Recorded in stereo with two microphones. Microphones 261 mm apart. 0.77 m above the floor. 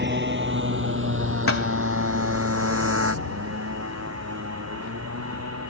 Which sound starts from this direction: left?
A thud, at 1.5 s.